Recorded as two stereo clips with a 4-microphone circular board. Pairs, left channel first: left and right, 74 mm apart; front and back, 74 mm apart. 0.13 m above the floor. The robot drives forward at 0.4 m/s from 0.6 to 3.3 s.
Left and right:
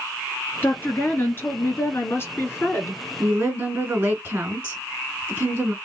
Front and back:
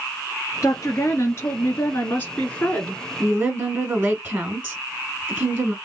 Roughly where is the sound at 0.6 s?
Ahead left.